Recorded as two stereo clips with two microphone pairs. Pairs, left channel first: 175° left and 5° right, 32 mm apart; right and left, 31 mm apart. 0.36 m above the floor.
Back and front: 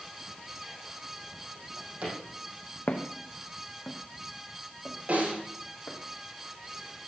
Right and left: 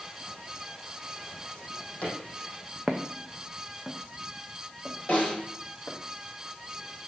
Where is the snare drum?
40° right, 6.5 m.